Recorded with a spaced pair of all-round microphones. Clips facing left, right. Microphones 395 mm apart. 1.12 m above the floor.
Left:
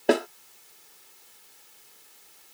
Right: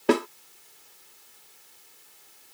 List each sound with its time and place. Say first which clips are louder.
0.1 s a snare drum: even; 15° right (ahead or behind)